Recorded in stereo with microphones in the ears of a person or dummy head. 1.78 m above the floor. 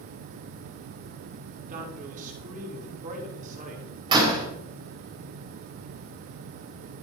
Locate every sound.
1.7 s a man speaking: 45° right (ahead or behind), 5.5 m
4.1 s a door slam: 25° right (ahead or behind), 6 m